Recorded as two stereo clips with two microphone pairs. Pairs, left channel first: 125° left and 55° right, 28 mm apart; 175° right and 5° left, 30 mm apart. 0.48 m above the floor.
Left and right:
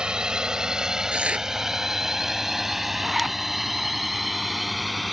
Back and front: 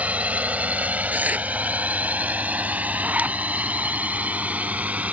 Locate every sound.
0.0 s a drone: 5° right; by 5.1 s 30° left
1.1 s tearing paper: 10° right
3.0 s a zipper: 30° left